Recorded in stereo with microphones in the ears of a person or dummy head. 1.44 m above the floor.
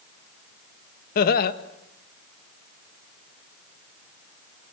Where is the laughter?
55° left (ahead or behind), 1.9 m.